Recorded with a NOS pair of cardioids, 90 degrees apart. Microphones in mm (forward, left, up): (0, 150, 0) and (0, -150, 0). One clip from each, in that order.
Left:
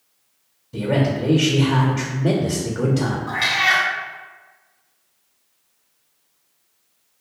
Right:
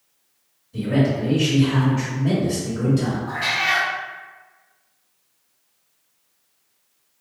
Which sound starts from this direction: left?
A man speaking, at 0.7 s.